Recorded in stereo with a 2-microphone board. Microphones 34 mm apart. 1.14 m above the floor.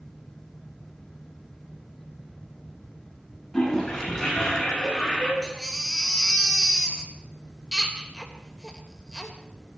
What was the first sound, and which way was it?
A toilet flushing, centre (ahead or behind).